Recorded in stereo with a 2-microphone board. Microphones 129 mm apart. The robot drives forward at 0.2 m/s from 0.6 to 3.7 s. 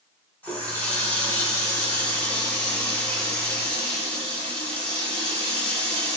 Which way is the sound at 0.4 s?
15° left (ahead or behind).